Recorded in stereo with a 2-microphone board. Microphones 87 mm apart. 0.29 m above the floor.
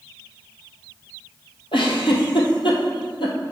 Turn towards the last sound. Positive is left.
turn(degrees=80)